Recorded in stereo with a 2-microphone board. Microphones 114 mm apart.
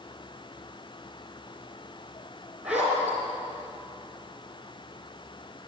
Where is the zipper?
10° right (ahead or behind), 4.5 m.